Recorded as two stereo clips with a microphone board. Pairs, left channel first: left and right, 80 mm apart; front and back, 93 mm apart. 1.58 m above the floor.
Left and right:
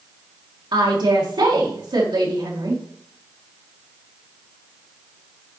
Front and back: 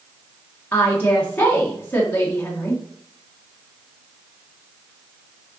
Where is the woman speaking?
70° right, 1.8 m.